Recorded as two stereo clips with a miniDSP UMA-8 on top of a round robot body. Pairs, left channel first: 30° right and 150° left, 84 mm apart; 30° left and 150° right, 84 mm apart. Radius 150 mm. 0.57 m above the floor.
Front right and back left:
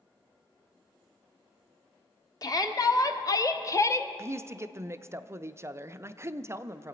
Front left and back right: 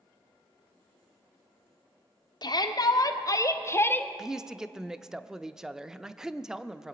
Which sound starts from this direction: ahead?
A shout, at 2.4 s.